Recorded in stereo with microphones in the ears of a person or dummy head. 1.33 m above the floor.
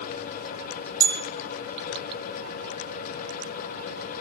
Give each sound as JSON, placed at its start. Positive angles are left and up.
{"t": 1.0, "sound": "a bell", "side_deg": -25, "distance_m": 0.6}